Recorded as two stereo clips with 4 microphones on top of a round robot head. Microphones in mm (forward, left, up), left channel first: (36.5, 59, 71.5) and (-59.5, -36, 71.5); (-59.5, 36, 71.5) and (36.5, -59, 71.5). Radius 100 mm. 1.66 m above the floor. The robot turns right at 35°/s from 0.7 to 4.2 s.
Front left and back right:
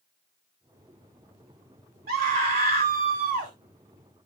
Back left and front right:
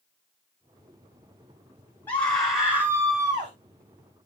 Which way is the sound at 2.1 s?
145° right.